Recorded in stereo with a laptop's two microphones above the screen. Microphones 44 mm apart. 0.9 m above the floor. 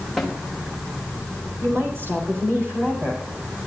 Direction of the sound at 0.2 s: Centre (ahead or behind).